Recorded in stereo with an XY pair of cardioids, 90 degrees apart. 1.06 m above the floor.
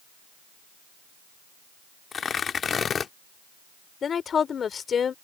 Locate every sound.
2.1 s tearing paper: 55° left
4.0 s a woman speaking: 55° left